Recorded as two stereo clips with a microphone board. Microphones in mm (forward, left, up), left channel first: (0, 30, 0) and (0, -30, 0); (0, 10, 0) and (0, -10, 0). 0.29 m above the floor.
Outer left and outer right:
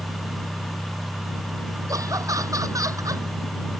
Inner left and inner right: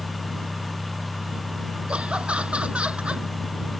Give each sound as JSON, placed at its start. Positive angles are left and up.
{"t": 1.9, "sound": "laughter", "side_deg": -70}